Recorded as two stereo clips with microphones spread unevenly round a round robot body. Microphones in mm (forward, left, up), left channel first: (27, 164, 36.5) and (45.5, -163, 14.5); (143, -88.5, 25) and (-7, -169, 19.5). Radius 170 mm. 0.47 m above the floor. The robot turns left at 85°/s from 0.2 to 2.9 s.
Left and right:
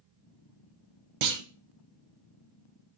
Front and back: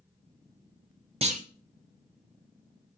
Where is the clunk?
90° right, 0.6 m; by 1.4 s 110° right, 0.6 m.